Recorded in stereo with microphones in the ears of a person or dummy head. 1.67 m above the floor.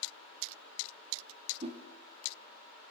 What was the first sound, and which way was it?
A whoosh, 35° right (ahead or behind).